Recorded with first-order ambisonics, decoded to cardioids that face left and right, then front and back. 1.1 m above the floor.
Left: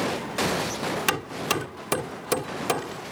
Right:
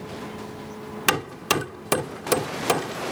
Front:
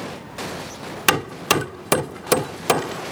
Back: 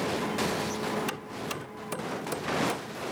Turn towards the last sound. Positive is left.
turn(degrees=-15)